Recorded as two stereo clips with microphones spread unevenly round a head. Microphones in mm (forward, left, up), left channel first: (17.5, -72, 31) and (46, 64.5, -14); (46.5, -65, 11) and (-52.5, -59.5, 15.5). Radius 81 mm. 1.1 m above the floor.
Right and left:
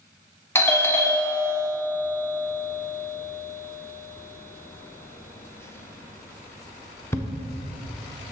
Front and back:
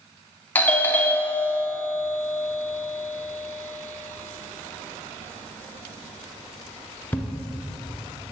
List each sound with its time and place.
0.6 s a doorbell: 10° right, 0.7 m